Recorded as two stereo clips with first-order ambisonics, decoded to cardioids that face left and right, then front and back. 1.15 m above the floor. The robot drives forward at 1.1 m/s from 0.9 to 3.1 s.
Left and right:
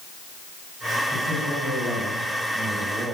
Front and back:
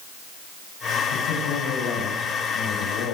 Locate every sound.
1.1 s a man speaking: 10° right, 7.5 m; by 3.1 s 15° right, 5.5 m